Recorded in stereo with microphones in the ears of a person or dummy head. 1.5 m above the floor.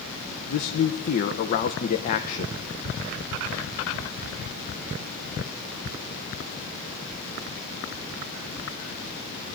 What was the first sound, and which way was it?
A man speaking, 50° left (ahead or behind).